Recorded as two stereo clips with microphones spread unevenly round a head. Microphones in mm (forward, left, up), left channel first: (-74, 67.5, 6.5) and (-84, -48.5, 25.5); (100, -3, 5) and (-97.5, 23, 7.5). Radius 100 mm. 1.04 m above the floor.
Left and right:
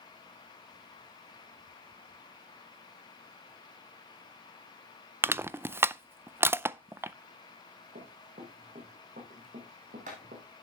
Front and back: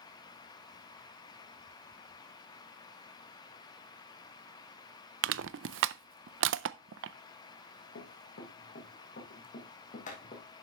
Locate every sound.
5.2 s crushing: 170° right, 0.5 m
8.0 s running footsteps: 55° right, 4 m; by 10.5 s 65° right, 3 m